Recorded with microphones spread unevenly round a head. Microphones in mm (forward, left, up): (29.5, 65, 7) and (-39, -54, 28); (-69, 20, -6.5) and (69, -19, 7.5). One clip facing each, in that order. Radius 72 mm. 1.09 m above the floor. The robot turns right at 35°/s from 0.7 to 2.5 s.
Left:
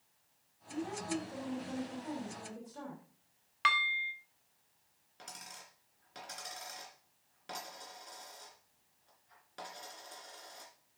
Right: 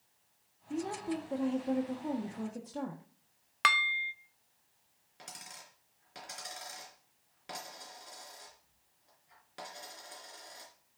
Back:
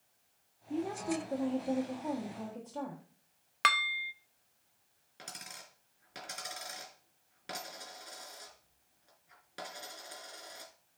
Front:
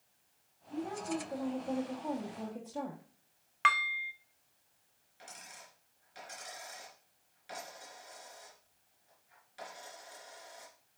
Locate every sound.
0.7 s a woman speaking: 155° right, 1.6 m; by 3.0 s 95° right, 1.6 m
3.6 s dishes clattering: 150° right, 0.7 m
5.2 s a dropped coin: 155° left, 3 m